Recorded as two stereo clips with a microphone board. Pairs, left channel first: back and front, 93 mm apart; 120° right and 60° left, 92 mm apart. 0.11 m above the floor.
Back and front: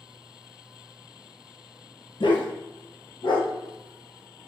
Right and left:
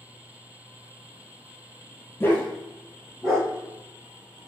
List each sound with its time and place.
2.2 s a dog barking: straight behind, 0.7 m; by 4.4 s 150° left, 2 m